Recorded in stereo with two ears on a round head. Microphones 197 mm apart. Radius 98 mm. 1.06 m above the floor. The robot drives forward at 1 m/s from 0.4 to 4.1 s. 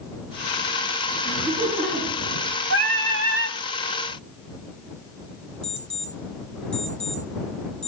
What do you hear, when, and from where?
1.2 s laughter: 15° right (ahead or behind), 9.5 m
2.7 s singing: 60° right (ahead or behind), 4 m; by 3.6 s 70° right (ahead or behind), 3.5 m
5.6 s an alarm clock: 25° right (ahead or behind), 3.5 m